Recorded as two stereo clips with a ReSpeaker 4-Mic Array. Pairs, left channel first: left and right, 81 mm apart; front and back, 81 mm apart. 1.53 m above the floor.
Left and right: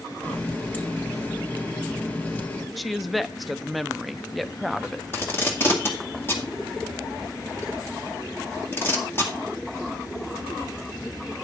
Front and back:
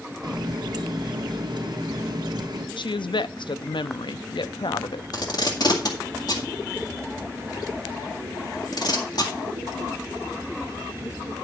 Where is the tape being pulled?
30° left, 2 m.